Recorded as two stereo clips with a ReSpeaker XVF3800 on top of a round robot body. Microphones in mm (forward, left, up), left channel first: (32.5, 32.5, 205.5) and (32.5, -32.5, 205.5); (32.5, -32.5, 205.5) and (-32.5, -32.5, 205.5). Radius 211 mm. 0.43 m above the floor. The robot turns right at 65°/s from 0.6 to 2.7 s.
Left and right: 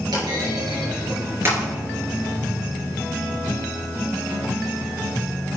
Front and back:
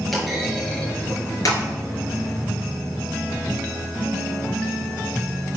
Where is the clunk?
90° right, 3.5 m; by 1.6 s 25° right, 3.5 m.